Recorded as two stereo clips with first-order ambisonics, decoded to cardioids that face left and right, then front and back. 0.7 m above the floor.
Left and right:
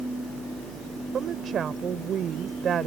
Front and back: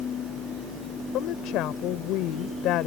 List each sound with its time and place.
1.1 s a woman speaking: 30° right